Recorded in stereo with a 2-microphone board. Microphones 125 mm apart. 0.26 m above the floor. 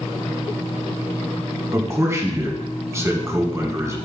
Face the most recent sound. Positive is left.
turn(degrees=-25)  # may be behind; listen again after turning